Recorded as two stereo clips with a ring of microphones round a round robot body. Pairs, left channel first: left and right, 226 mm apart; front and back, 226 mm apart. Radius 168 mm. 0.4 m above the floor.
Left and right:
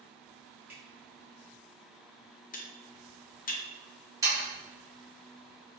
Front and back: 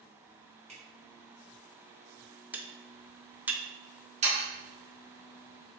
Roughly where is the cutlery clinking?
Left.